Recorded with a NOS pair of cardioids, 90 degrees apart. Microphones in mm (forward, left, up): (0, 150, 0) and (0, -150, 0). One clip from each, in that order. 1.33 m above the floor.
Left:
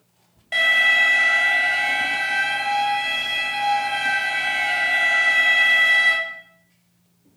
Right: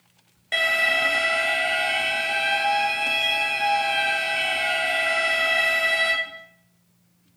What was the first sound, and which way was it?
An alarm, 25° right.